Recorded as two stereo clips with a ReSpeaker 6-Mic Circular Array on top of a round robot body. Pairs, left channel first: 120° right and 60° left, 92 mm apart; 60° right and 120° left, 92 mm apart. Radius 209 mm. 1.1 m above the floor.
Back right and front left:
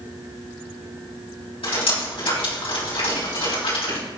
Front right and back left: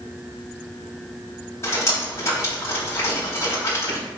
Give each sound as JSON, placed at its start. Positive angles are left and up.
{"t": 1.6, "sound": "dripping", "azimuth_deg": -115, "distance_m": 5.5}